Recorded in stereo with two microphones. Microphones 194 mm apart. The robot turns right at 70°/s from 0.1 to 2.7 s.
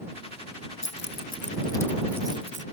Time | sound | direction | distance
0.8 | keys jangling | 80° left | ?